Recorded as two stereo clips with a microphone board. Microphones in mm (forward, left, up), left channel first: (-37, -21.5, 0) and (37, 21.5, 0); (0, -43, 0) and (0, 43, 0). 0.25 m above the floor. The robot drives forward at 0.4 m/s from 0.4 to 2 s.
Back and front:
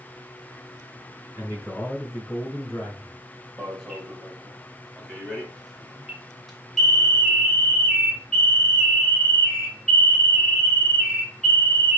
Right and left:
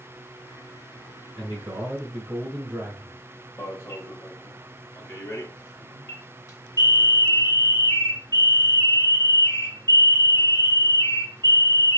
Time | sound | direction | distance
1.4 | a man speaking | 145° left | 2.5 m
3.6 | an alarm | 65° right | 1.3 m